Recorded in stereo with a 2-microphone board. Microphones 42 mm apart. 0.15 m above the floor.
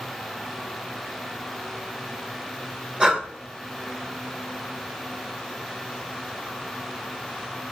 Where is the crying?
No crying in this recording.